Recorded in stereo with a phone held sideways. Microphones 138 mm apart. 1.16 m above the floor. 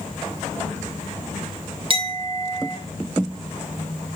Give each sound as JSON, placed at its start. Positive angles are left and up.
{"t": 1.9, "sound": "a clink", "side_deg": -40, "distance_m": 2.5}